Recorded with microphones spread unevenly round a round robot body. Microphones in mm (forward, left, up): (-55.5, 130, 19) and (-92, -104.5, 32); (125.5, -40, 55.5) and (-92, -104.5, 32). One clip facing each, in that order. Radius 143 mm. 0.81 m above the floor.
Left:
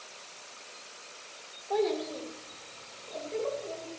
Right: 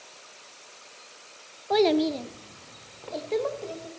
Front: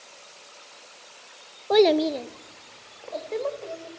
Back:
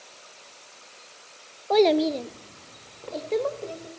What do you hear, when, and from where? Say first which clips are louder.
1.7 s a child speaking: right 8 dB, front 1 dB; 55° right, 0.9 m; by 3.9 s 120° right, 3 m